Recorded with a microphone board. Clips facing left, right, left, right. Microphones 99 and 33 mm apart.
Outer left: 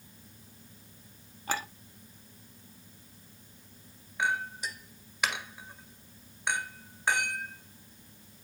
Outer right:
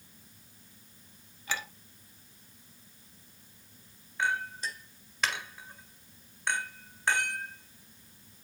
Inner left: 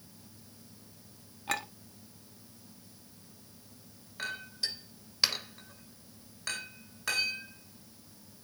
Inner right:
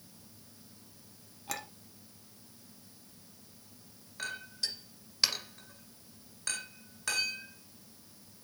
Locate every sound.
1.5 s a clink: 40° left (ahead or behind), 1.1 m
4.2 s a clink: 10° left (ahead or behind), 1.9 m